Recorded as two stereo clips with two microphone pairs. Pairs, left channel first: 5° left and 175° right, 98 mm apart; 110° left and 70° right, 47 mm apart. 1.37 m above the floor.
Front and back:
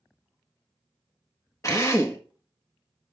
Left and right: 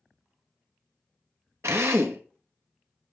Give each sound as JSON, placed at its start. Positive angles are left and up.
{"t": 1.6, "sound": "a drill", "azimuth_deg": -55, "distance_m": 1.4}